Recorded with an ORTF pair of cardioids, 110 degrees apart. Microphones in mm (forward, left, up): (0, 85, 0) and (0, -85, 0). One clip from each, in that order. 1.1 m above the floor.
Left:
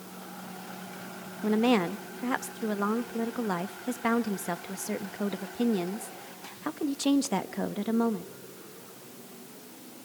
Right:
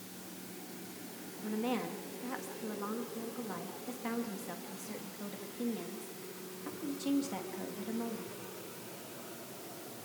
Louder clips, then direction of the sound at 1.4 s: Left 11 dB; 65° left.